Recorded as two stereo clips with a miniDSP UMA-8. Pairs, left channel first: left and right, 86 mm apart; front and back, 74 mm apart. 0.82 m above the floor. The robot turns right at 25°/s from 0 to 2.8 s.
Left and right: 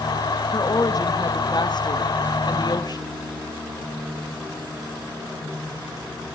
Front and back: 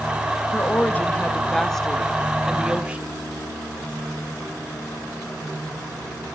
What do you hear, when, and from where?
0.5 s a woman speaking: 55° left, 1.0 m; by 3.1 s 110° left, 1.0 m